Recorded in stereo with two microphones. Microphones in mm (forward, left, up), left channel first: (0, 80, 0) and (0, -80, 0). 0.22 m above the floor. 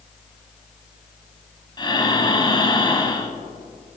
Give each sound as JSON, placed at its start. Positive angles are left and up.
{"t": 1.8, "sound": "breathing", "side_deg": 30, "distance_m": 0.8}